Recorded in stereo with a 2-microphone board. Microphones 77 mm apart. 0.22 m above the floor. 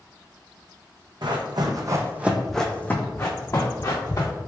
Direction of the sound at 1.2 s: 75° right (ahead or behind).